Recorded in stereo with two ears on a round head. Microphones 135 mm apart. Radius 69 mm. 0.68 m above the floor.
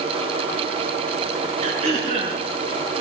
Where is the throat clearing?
40° right (ahead or behind), 6.5 m.